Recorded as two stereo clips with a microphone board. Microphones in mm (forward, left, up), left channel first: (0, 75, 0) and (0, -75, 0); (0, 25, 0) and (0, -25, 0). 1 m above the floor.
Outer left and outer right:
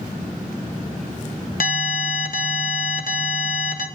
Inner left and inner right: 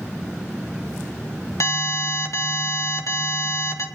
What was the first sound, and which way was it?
An alarm, 70° left (ahead or behind).